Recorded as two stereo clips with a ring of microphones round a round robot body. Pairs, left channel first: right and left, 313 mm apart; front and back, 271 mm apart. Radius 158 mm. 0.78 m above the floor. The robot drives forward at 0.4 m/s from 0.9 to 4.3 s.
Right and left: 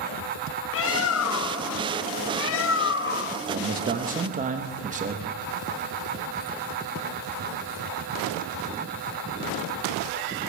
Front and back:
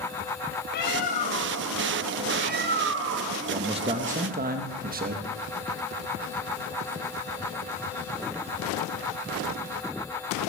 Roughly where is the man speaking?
Behind left.